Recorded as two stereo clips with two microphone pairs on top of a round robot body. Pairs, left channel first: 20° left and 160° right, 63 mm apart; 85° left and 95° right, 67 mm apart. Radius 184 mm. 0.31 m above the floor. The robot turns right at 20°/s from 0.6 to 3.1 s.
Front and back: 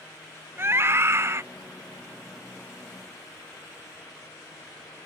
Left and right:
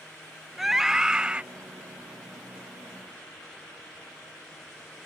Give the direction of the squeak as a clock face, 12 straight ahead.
No squeak in this recording.